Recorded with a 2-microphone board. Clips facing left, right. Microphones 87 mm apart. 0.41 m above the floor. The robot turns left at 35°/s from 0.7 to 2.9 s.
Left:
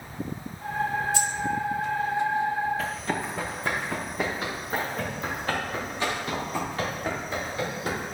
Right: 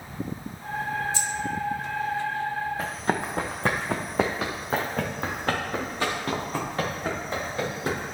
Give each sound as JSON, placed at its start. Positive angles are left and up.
{"t": 1.1, "sound": "keys jangling", "side_deg": 60, "distance_m": 1.3}
{"t": 2.8, "sound": "running footsteps", "side_deg": -30, "distance_m": 2.0}